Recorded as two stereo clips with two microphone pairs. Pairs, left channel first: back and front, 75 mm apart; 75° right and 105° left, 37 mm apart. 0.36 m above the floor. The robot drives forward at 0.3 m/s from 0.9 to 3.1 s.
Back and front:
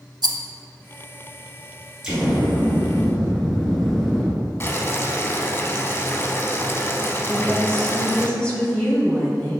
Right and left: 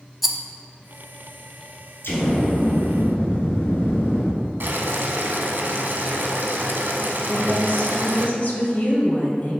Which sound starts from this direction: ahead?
A rattle, at 0.2 s.